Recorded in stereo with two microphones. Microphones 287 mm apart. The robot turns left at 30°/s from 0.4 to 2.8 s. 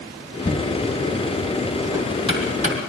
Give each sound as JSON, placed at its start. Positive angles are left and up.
{"t": 0.5, "sound": "knocking", "side_deg": 35, "distance_m": 3.0}